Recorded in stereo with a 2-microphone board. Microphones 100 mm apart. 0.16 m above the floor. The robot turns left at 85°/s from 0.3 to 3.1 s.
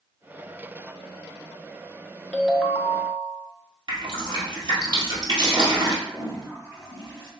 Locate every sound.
2.3 s a ringtone: 15° left, 0.7 m; by 3.5 s 50° right, 0.7 m
3.9 s dripping: 50° right (ahead or behind), 1.8 m
6.0 s a toilet flushing: 25° right (ahead or behind), 1.9 m